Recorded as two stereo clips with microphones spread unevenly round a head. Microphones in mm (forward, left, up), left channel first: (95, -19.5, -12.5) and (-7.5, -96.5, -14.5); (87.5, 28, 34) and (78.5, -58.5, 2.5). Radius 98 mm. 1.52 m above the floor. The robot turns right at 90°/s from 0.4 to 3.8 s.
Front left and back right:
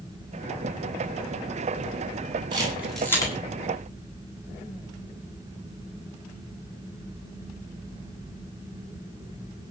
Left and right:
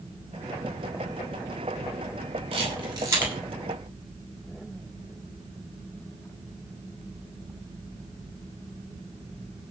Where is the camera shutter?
90° right, 9 m; by 3.3 s 15° right, 9 m.